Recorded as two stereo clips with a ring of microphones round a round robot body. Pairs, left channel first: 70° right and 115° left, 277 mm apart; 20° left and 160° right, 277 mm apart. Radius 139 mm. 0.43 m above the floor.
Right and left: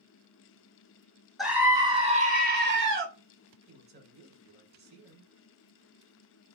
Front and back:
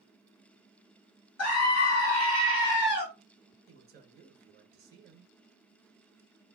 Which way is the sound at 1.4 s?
25° left.